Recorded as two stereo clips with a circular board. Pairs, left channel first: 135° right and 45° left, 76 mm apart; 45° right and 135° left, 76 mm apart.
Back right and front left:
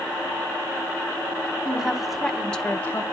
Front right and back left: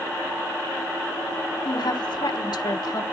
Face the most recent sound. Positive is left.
turn(degrees=-75)